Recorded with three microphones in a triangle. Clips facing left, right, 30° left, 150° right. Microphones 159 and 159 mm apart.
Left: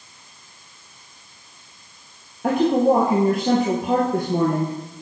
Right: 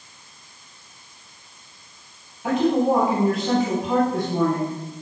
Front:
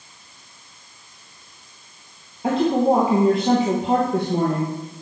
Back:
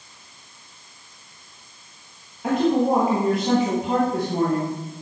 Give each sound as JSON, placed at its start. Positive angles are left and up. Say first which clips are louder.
{"t": 2.4, "sound": "a woman speaking", "louder": "left 2 dB, front 1 dB", "azimuth_deg": 90, "distance_m": 2.5}